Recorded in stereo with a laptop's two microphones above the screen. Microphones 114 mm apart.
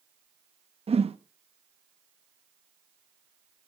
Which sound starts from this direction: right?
A whoosh, at 0.9 s.